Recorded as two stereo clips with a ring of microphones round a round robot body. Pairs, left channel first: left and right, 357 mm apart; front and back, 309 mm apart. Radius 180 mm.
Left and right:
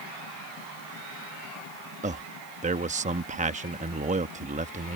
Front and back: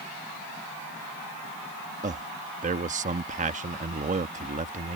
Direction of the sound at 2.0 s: 140° right.